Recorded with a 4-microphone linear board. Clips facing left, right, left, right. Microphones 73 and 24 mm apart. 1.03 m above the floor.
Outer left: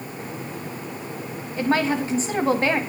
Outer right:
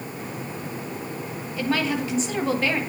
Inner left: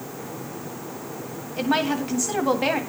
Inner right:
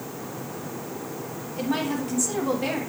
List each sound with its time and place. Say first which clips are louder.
1.6 s a woman speaking: outer left 3 dB, inner left 4 dB; 35° left (ahead or behind), 1.6 m